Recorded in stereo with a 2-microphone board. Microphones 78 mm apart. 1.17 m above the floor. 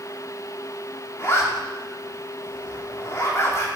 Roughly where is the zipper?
Left.